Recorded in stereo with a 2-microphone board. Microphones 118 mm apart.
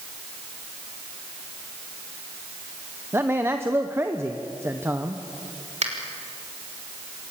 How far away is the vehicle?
No vehicle in this recording.